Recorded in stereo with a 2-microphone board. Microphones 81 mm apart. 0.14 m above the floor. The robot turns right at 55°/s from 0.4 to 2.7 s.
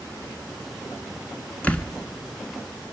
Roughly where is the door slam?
Centre.